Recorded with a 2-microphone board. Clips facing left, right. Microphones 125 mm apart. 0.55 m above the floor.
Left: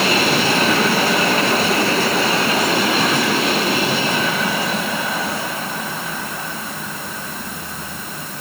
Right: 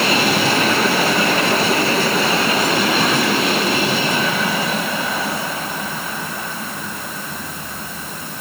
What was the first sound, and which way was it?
Only background noise.